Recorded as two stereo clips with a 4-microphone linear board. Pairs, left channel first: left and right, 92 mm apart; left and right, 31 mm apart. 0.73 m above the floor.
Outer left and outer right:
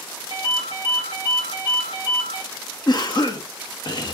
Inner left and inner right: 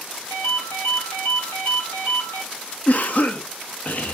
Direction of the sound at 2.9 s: 50° left (ahead or behind).